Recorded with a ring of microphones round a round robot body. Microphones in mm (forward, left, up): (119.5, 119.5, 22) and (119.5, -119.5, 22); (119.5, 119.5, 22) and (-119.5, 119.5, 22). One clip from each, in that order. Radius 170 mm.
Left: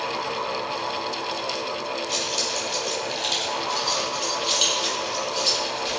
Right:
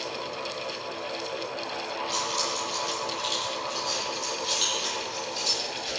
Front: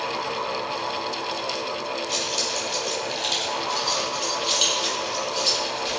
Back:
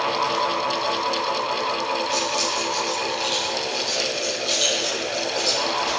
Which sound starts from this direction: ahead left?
Keys jangling, at 2.1 s.